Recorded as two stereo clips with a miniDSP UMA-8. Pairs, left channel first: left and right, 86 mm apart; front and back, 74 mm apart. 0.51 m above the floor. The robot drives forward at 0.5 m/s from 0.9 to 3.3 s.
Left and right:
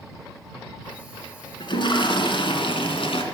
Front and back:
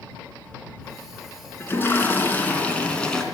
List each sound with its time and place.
1.6 s a toilet flushing: 60° left, 2.5 m; by 3.2 s 80° left, 2.0 m